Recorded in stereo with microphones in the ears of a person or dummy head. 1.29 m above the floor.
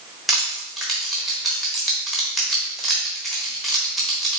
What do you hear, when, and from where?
0.3 s crushing: centre (ahead or behind), 1.1 m